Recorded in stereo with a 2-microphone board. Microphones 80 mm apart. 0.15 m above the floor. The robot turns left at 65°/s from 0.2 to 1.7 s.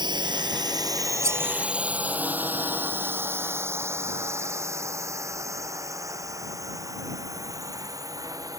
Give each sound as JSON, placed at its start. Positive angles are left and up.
{"t": 0.0, "sound": "a drone", "side_deg": -65}
{"t": 1.2, "sound": "cutlery clinking", "side_deg": -40}